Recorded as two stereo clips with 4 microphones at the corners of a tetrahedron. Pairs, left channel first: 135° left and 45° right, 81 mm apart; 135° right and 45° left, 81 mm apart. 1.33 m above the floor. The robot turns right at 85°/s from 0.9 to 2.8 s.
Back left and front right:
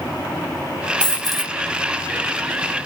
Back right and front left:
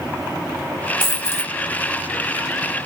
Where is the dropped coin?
165° right, 0.8 m; by 1.5 s 120° right, 0.8 m.